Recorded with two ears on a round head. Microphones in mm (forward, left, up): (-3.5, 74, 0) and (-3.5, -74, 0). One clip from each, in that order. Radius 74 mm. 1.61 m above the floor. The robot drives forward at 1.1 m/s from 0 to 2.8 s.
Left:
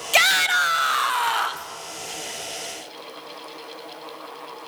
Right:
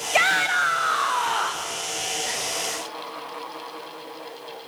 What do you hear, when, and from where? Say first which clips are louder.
0.1 s a shout: left 2 dB; 75° left (ahead or behind), 1.1 m; by 1.7 s 35° left (ahead or behind), 1.8 m